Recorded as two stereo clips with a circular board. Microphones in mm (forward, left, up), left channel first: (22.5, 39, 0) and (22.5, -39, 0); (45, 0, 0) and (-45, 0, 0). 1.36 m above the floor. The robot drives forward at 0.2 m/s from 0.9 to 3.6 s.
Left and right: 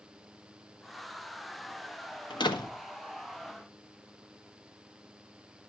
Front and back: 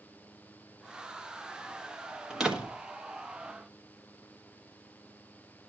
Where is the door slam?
95° left, 1.4 m; by 2.8 s 100° left, 1.4 m.